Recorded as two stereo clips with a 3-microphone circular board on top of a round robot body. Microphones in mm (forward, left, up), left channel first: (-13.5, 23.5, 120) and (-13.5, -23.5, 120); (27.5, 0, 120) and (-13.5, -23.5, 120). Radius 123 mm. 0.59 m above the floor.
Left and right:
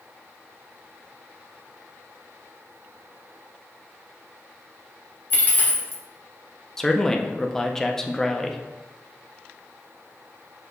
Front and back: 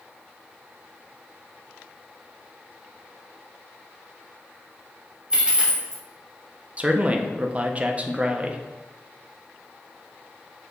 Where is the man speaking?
165° left, 0.7 m.